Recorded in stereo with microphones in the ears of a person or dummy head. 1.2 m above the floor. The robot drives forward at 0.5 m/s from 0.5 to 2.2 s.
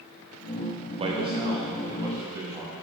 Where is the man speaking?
40° right (ahead or behind), 0.8 m; by 2.7 s 20° right (ahead or behind), 1.4 m.